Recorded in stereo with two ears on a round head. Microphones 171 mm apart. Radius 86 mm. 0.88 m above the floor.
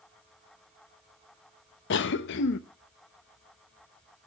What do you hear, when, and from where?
1.9 s a cough: 60° left (ahead or behind), 0.6 m